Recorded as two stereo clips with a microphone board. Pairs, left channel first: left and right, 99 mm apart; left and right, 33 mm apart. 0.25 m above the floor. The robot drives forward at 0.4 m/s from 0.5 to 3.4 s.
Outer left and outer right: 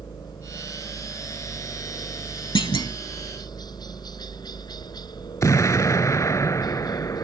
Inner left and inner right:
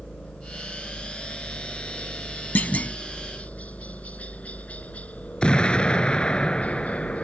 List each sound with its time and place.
0.0 s a helicopter: 45° left (ahead or behind)
2.5 s a clunk: 60° left (ahead or behind); by 3.0 s 50° left (ahead or behind)
5.4 s an explosion: 35° left (ahead or behind)